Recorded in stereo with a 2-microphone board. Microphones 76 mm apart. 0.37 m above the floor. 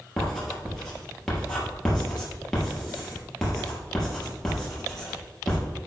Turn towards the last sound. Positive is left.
turn(degrees=5)  # may be behind; listen again after turning